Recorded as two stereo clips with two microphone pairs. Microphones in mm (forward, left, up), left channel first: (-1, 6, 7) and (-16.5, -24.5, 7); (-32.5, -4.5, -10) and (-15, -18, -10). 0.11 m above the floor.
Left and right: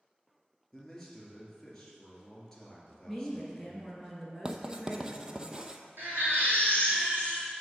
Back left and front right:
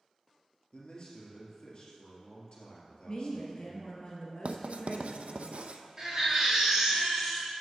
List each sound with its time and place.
0.7 s a man speaking: 135° left, 2.5 m
3.1 s a woman speaking: 150° left, 1.8 m
4.5 s writing: 50° right, 0.6 m
6.0 s a baby crying: 115° right, 2.5 m